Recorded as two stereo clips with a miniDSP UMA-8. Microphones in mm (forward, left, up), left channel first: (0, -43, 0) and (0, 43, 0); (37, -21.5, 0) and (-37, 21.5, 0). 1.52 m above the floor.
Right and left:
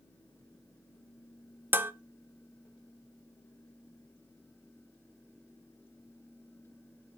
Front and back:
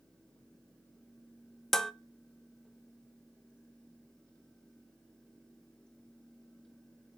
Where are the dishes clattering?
50° left, 0.6 m.